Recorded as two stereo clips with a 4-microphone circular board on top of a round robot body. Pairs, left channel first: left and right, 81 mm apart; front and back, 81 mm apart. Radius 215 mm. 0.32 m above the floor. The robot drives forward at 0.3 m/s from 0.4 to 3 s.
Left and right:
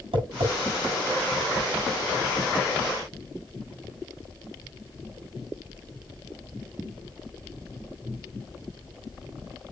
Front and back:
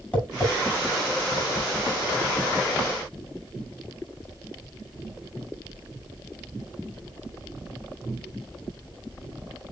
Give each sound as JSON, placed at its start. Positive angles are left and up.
{"t": 0.1, "sound": "tapping", "azimuth_deg": -75, "distance_m": 6.5}